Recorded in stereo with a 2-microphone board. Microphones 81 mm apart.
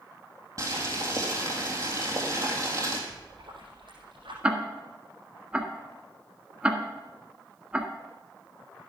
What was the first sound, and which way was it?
Boiling, 45° right (ahead or behind).